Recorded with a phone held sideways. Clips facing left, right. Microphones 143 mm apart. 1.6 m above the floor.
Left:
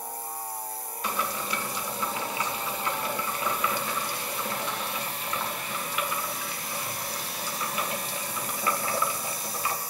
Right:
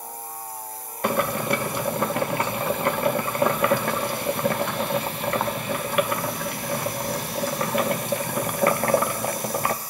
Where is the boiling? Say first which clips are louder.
Right 9 dB; 60° right (ahead or behind), 0.8 m.